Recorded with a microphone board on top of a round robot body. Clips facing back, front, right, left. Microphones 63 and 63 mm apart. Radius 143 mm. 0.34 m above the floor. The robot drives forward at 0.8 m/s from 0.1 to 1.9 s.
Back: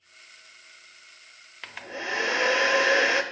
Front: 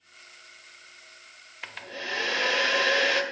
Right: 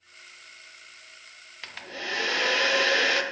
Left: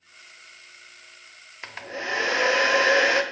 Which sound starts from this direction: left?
A hair dryer, at 1.6 s.